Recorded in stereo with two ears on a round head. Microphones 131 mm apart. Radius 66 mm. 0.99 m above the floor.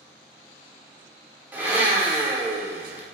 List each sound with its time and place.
1.5 s a blender: 10° right (ahead or behind), 0.7 m